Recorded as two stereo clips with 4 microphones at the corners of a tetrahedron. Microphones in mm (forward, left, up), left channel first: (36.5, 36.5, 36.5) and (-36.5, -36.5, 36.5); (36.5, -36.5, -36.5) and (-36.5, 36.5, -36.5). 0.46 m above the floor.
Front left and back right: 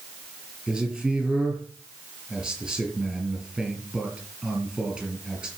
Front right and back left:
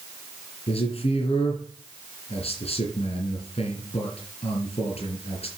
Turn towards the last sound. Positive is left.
turn(degrees=-55)